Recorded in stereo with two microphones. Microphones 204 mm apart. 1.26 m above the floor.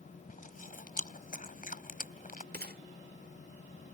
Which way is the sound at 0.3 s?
40° left (ahead or behind).